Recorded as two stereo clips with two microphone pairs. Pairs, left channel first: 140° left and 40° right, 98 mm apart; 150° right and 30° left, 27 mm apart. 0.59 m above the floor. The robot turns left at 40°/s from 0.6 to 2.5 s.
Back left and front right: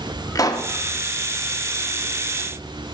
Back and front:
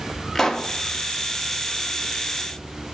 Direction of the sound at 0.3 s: 150° left.